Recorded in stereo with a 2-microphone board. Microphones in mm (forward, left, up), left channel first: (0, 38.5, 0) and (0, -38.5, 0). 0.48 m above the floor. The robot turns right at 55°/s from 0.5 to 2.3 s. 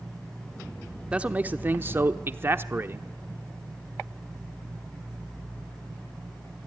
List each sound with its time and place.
1.1 s a man speaking: 150° right, 0.9 m; by 3.1 s 85° right, 0.9 m